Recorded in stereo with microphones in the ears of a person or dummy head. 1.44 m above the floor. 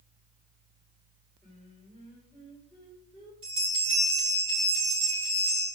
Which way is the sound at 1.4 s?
5° left (ahead or behind).